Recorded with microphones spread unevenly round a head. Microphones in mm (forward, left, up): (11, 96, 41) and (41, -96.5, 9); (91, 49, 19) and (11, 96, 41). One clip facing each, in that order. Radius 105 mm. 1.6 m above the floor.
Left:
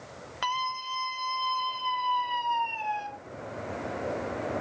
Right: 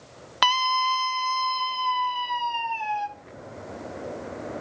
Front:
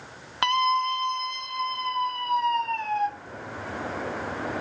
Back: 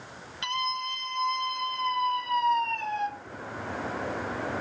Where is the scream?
75° right, 1.0 m; by 3.1 s 130° right, 3.5 m.